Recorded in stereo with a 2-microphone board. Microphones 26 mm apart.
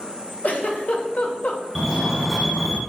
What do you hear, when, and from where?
0.4 s a giggle: 80° left, 2.5 m
1.8 s a fire alarm: 5° right (ahead or behind), 3.5 m